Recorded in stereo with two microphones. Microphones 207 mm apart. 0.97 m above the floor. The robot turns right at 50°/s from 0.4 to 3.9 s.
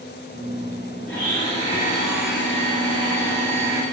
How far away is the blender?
About 2.5 m.